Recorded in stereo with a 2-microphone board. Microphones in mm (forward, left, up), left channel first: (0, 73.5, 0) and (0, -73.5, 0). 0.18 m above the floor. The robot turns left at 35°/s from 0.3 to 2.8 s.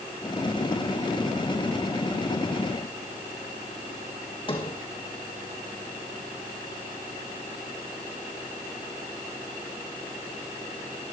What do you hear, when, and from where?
4.5 s a sliding door: 35° left (ahead or behind), 4.5 m